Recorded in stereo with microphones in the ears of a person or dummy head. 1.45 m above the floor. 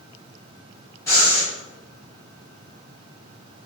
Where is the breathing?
15° left (ahead or behind), 1.2 m.